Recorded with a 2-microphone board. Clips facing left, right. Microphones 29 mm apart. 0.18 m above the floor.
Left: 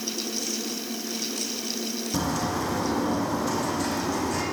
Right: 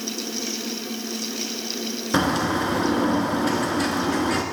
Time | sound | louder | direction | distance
2.1 | a bird | right 7 dB | 60° right (ahead or behind) | 0.8 m